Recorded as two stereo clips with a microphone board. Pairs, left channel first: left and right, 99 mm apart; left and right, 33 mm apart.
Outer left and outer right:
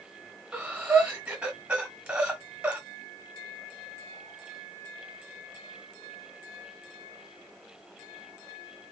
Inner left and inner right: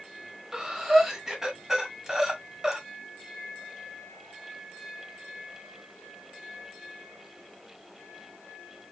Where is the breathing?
15° right (ahead or behind), 1.4 m.